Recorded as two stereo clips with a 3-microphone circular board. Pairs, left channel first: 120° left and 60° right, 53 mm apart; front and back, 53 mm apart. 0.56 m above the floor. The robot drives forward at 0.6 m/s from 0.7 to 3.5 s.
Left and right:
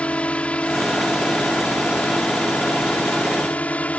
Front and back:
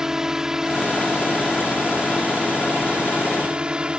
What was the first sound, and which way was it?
A drone, 115° left.